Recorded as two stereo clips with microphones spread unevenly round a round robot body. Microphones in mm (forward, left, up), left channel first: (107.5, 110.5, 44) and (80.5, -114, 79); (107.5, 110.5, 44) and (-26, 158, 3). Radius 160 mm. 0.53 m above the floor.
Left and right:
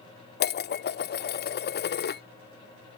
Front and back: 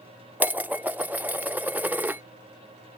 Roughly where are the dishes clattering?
Left.